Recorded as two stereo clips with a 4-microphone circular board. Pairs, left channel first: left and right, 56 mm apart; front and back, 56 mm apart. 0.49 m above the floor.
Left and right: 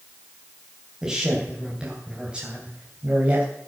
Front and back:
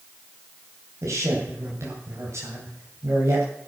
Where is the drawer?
No drawer in this recording.